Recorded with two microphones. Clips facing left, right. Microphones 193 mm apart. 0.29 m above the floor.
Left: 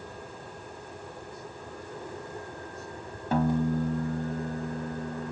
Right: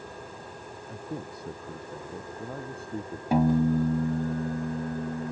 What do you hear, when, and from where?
0.9 s a man speaking: 70° right (ahead or behind); by 3.2 s 60° right (ahead or behind)
3.3 s a piano: 15° right (ahead or behind)